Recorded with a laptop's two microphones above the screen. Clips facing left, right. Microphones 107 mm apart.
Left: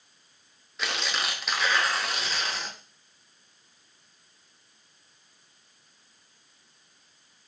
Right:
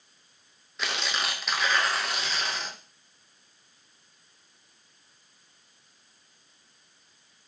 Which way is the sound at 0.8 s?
Centre (ahead or behind).